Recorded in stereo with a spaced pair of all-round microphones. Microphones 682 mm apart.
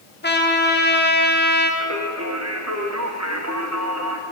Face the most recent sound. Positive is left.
turn(degrees=-25)  # may be behind; listen again after turning